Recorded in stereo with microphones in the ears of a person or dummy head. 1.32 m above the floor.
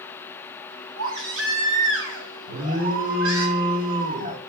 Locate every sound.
1.0 s a baby crying: 75° right (ahead or behind), 3.5 m
2.5 s an alarm: 45° right (ahead or behind), 3 m